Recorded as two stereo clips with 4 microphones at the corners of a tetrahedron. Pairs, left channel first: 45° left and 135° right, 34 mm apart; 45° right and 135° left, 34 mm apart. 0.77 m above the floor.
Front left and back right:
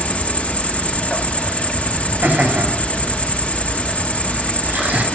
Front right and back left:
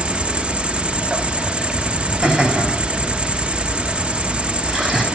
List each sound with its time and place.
0.0 s an insect: 85° left, 0.8 m
2.2 s laughter: 130° right, 5.5 m